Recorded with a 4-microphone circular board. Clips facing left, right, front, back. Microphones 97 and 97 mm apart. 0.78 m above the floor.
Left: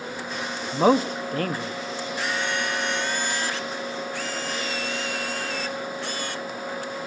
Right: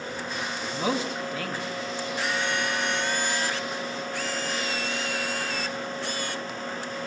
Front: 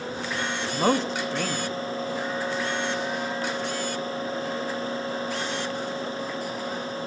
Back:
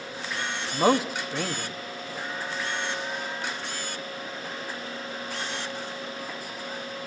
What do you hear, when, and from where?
0.7 s a man speaking: 100° left, 1.1 m